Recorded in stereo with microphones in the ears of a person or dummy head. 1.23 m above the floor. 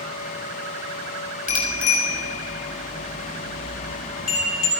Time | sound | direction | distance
1.5 | a bicycle bell | 45° left (ahead or behind) | 2 m